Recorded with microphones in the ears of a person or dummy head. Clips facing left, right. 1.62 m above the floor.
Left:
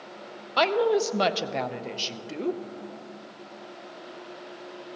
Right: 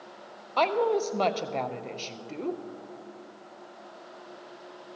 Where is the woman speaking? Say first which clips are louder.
Left 2 dB; 15° left (ahead or behind), 0.6 m.